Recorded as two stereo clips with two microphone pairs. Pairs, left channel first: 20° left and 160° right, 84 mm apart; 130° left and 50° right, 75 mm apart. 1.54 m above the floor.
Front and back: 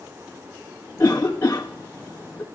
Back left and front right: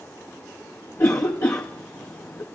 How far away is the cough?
About 0.9 m.